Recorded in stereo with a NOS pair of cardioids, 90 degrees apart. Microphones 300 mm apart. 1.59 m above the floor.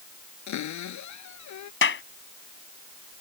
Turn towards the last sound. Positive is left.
turn(degrees=40)